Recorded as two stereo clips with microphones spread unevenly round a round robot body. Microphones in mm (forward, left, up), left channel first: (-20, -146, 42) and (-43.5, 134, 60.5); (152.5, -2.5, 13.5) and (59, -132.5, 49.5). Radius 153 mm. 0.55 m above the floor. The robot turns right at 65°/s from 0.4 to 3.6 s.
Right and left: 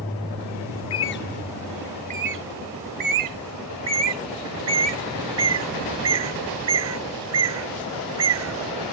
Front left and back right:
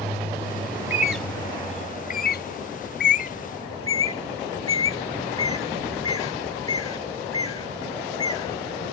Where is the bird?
60° right; by 8.7 s 125° left.